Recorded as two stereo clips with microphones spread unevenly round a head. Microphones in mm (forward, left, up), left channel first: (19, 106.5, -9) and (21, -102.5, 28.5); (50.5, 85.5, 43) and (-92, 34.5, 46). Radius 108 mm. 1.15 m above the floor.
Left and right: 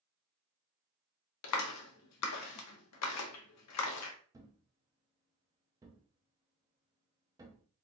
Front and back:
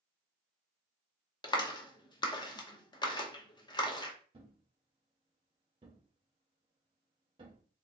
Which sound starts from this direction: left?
A clap, at 1.4 s.